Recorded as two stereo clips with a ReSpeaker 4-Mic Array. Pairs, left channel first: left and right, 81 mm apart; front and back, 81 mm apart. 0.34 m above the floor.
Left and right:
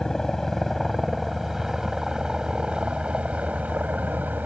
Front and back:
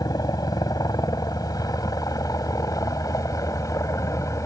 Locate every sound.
0.0 s a helicopter: 5° left; by 4.5 s 30° right